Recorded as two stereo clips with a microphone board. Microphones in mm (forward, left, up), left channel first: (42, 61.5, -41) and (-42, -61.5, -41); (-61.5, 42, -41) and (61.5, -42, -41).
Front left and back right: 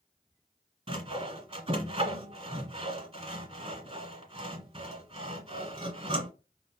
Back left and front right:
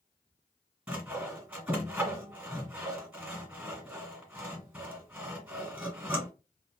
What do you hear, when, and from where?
0.9 s sawing: 110° right, 1.4 m